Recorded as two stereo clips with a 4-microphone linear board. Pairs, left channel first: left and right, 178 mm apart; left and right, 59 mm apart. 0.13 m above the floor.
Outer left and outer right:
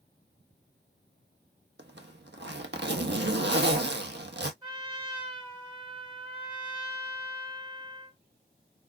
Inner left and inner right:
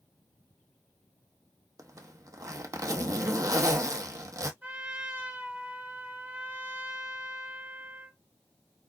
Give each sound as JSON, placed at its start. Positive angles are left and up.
{"t": 1.8, "sound": "a zipper", "side_deg": -85, "distance_m": 0.8}
{"t": 4.6, "sound": "a trumpet", "side_deg": -25, "distance_m": 1.9}